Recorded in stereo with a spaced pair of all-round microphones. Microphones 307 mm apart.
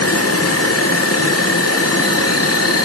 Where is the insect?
50° left (ahead or behind), 0.8 m.